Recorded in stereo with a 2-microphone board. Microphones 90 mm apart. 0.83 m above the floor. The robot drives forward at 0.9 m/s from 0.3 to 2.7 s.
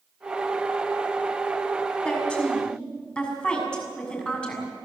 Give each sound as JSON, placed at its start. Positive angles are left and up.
{"t": 2.0, "sound": "a woman speaking", "side_deg": 10, "distance_m": 6.0}